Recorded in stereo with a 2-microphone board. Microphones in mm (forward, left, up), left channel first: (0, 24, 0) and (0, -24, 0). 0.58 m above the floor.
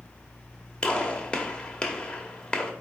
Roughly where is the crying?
No crying in this recording.